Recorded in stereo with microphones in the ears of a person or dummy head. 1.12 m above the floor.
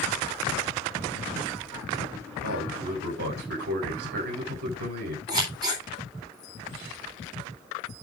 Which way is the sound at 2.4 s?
60° right (ahead or behind).